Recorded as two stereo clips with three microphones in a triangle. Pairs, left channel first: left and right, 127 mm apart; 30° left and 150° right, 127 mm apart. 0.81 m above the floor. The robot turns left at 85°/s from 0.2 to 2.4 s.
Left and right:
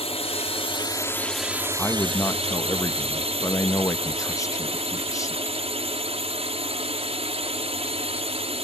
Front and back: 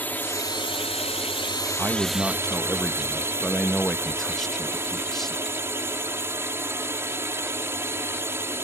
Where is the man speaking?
165° left; by 5.4 s 115° left.